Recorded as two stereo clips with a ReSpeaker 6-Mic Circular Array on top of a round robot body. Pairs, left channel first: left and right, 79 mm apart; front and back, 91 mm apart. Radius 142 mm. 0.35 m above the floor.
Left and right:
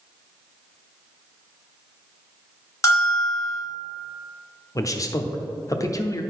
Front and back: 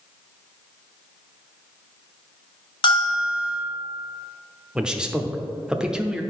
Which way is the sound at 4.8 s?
100° left.